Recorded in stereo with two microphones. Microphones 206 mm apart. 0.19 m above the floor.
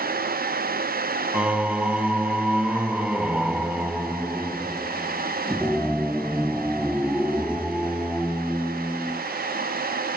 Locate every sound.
1.3 s singing: 5° right (ahead or behind), 0.7 m